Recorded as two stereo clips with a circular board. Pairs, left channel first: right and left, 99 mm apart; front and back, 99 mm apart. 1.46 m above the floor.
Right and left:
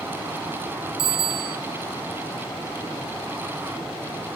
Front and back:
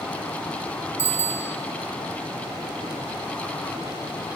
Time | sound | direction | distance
1.0 | a bicycle bell | 105° left | 2.5 m